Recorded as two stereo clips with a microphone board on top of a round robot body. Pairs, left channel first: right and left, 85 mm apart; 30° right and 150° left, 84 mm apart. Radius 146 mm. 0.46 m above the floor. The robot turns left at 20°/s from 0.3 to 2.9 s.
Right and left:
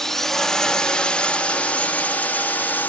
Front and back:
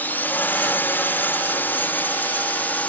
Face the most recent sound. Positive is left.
turn(degrees=-65)